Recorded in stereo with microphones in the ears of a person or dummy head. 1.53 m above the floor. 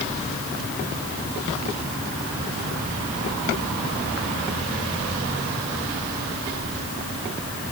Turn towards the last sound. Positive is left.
No sound to turn to.